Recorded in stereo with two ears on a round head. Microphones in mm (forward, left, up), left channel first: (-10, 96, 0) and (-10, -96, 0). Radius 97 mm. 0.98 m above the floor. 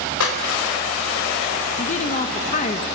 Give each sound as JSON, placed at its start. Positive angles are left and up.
{"t": 0.2, "sound": "a clap", "side_deg": 75, "distance_m": 4.0}
{"t": 1.8, "sound": "a woman speaking", "side_deg": 35, "distance_m": 1.0}